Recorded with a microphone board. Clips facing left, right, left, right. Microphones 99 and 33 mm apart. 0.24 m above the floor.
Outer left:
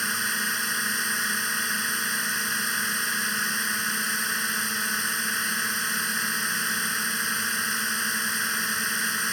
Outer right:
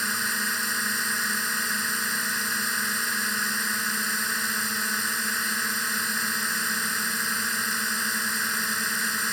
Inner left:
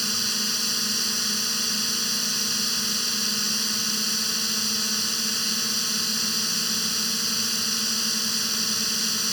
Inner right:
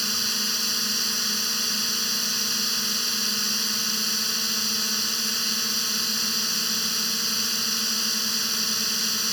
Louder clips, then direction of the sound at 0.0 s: Even, even; centre (ahead or behind).